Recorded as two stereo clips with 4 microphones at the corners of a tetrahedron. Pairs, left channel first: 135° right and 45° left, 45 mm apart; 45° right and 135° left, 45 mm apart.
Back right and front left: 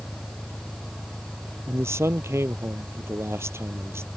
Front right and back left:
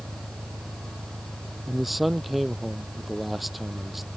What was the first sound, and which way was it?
An engine running, 140° left.